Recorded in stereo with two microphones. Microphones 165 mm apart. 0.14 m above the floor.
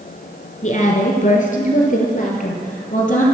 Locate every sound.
0.6 s a woman speaking: 50° left (ahead or behind), 1.8 m